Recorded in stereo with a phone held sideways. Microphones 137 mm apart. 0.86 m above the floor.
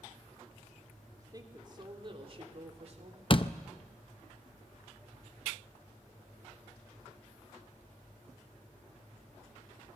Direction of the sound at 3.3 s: 40° left (ahead or behind).